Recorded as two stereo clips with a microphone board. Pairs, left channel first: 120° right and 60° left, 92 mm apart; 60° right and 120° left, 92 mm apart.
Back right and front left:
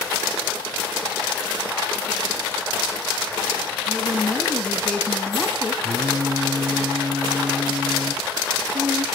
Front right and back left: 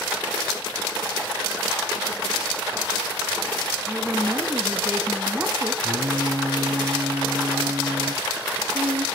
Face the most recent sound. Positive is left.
turn(degrees=115)